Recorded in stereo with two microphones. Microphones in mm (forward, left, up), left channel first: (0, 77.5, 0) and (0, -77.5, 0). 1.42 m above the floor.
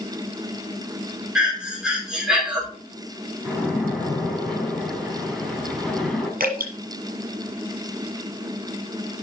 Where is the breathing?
5° right (ahead or behind), 4 m.